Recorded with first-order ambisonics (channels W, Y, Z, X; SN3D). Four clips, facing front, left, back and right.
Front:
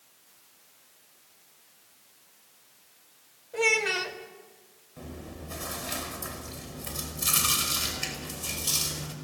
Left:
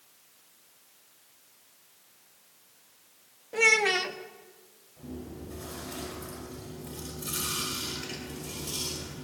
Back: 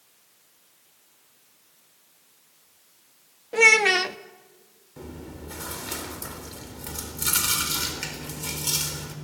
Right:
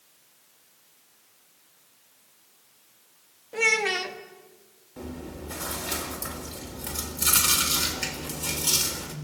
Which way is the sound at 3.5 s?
Straight behind.